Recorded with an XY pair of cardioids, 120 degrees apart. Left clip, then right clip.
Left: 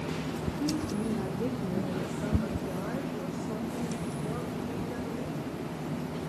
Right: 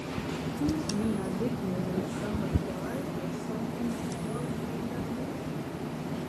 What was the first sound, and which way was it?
A woman speaking, 10° right.